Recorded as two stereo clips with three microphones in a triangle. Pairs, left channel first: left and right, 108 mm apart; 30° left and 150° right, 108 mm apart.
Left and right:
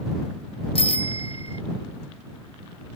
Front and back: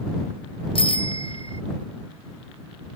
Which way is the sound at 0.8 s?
60° left.